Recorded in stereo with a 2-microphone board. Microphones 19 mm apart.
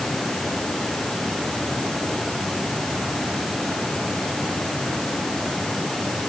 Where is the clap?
I don't hear a clap.